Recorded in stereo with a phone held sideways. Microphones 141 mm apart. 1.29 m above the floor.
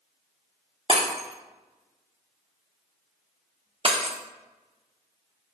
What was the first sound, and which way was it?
Breaking glass, 40° right (ahead or behind).